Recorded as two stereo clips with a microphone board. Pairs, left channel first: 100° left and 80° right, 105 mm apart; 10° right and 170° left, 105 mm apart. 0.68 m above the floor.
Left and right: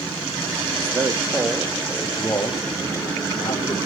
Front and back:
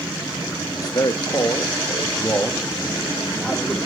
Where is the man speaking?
50° right, 1.1 m; by 3.8 s 70° left, 1.9 m.